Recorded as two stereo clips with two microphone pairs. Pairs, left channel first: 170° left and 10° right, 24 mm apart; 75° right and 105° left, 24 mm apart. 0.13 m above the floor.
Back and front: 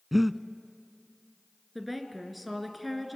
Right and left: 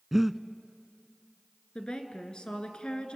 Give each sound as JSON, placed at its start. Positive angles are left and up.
{"t": 0.1, "sound": "breathing", "azimuth_deg": 50, "distance_m": 0.5}
{"t": 1.8, "sound": "a woman speaking", "azimuth_deg": -95, "distance_m": 1.9}